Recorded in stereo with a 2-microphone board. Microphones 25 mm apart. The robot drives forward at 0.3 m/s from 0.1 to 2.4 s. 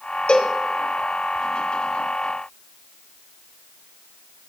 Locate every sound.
0.3 s a cowbell: 45° left (ahead or behind), 1.6 m; by 0.6 s 50° left (ahead or behind), 1.6 m